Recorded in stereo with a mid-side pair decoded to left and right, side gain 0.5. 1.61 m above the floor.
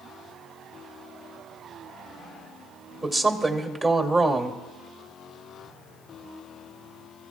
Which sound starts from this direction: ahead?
A woman speaking, at 3.0 s.